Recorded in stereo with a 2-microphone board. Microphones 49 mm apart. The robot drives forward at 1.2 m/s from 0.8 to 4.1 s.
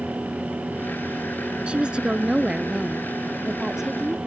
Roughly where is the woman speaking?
Right.